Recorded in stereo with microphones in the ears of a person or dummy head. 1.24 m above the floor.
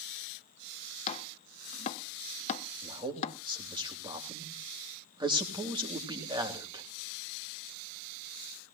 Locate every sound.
1.1 s chopping: 35° left (ahead or behind), 1.1 m
2.8 s a man speaking: 20° right (ahead or behind), 3 m